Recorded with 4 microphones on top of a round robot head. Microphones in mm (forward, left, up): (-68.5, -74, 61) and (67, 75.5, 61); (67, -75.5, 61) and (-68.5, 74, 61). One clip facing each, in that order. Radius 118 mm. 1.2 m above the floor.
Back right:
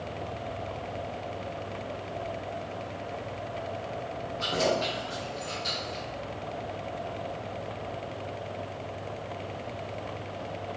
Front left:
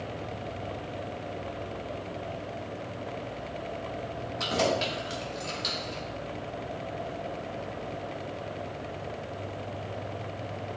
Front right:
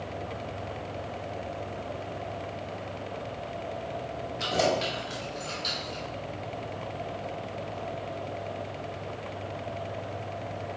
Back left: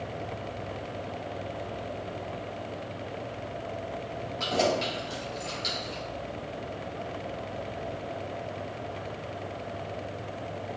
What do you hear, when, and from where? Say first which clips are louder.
4.4 s keys jangling: even, even; 35° left, 2 m; by 6.0 s 60° left, 2.5 m